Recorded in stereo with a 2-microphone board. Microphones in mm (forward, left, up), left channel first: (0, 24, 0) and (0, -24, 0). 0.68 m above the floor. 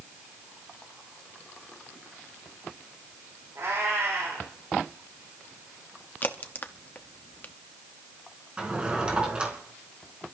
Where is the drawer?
20° right (ahead or behind), 3.5 m.